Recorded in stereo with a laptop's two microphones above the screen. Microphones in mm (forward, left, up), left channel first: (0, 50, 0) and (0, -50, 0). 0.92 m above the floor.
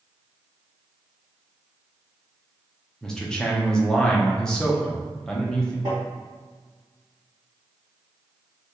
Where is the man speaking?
5° left (ahead or behind), 0.6 m.